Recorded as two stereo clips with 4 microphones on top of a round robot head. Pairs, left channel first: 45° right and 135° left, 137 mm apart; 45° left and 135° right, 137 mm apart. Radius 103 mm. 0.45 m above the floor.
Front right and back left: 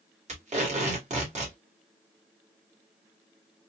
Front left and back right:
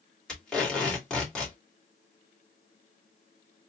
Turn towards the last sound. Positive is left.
turn(degrees=130)